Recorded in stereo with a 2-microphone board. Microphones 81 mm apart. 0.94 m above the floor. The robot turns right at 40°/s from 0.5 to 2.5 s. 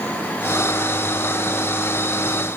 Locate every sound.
Only background noise.